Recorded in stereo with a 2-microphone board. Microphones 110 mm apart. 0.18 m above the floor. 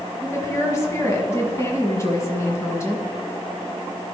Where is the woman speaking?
25° left (ahead or behind), 1.4 m.